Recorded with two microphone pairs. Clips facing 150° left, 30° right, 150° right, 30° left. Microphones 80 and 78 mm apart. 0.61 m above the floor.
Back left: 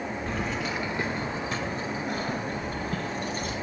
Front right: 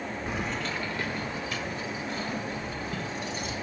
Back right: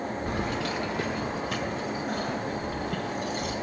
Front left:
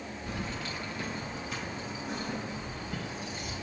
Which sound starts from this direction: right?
Keys jangling, at 0.3 s.